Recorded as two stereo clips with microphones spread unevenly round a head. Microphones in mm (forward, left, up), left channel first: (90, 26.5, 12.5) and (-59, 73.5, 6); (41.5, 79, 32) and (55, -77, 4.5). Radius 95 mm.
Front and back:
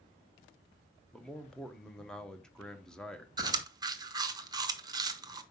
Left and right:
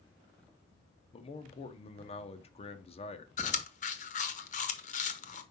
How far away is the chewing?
About 0.9 m.